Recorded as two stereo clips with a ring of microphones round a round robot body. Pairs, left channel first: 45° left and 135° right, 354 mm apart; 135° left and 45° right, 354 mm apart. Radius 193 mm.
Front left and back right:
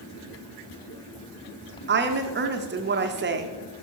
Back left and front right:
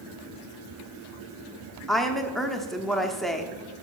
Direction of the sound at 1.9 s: 135° right.